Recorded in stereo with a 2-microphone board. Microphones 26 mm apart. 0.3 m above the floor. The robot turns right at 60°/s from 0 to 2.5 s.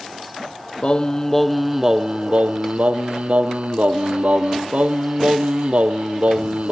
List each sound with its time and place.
0.8 s singing: 140° left, 0.6 m; by 6.7 s 120° right, 0.6 m